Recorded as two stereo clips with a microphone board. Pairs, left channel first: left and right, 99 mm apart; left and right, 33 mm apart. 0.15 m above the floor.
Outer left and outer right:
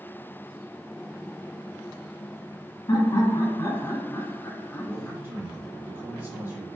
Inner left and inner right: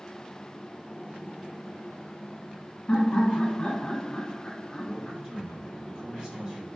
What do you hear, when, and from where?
2.9 s laughter: 40° left (ahead or behind), 1.4 m; by 5.2 s 15° left (ahead or behind), 1.4 m
4.8 s a man speaking: 25° right (ahead or behind), 2 m